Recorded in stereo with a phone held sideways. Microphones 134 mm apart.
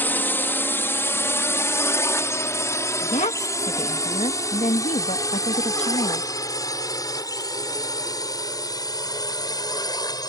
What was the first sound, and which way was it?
A drone, 15° left (ahead or behind).